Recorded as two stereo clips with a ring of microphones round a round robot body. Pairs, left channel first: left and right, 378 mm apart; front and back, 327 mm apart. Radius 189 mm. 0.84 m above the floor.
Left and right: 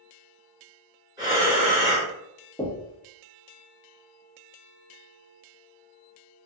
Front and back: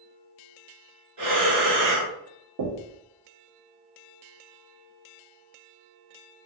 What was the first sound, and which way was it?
Breathing, 170° right.